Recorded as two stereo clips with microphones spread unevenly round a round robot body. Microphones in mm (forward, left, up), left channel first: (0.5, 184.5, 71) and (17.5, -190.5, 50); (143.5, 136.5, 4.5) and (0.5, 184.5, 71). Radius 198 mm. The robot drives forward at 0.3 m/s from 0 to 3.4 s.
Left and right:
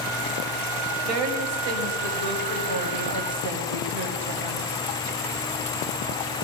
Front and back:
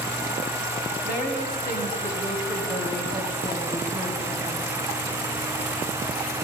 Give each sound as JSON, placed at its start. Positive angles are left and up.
{"t": 1.0, "sound": "a woman speaking", "azimuth_deg": -95, "distance_m": 3.5}